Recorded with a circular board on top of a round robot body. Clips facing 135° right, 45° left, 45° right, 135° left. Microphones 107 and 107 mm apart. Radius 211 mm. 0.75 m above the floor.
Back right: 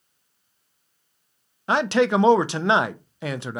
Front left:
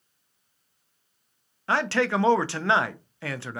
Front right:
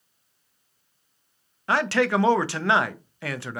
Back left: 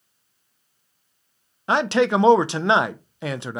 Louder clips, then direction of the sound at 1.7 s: Back right 5 dB, back left 3 dB; 175° left.